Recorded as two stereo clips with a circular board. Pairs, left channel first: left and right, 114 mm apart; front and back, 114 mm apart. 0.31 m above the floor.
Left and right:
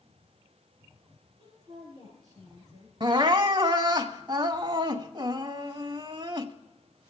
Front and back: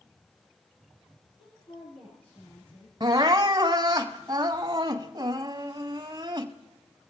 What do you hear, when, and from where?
1.4 s a woman speaking: 35° right, 7 m; by 2.9 s 25° right, 6.5 m
3.0 s crying: 130° right, 1.0 m